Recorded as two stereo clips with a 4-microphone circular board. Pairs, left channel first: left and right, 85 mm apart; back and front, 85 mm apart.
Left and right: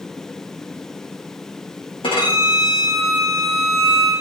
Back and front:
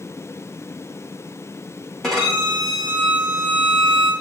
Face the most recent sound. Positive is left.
turn(degrees=95)